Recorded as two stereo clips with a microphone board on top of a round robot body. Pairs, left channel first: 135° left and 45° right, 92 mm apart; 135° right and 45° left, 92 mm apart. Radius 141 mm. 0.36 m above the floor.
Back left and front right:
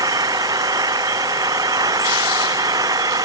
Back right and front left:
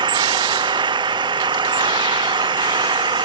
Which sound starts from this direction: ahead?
An engine running, at 0.0 s.